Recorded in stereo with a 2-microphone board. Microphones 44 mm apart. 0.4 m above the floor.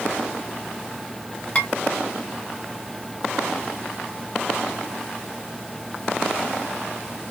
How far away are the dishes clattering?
About 1.3 m.